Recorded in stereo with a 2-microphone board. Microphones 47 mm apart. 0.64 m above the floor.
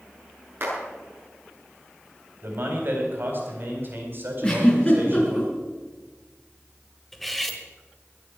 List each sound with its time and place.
0.6 s a clap: 50° right (ahead or behind), 9 m
2.4 s a man speaking: 45° right (ahead or behind), 4 m
4.4 s a giggle: 25° left (ahead or behind), 5 m
7.1 s cutlery clinking: 5° left (ahead or behind), 1.6 m